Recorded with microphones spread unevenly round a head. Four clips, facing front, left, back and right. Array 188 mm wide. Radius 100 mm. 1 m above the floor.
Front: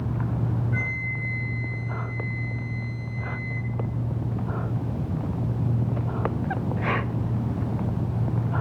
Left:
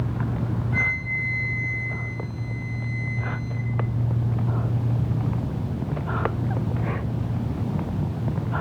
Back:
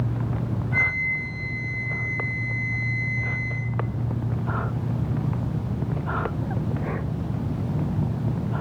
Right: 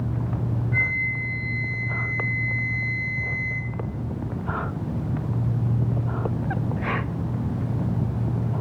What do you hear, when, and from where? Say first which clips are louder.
0.7 s a flute: even, back 4 dB; 155° right, 3.5 m